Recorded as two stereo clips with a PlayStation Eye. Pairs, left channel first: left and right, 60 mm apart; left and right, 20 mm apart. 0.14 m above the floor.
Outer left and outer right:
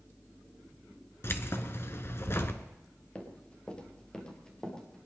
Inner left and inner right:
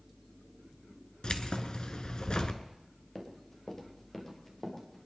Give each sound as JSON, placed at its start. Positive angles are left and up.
{"t": 1.2, "sound": "keys jangling", "side_deg": 45, "distance_m": 1.4}
{"t": 3.1, "sound": "running footsteps", "side_deg": 20, "distance_m": 3.5}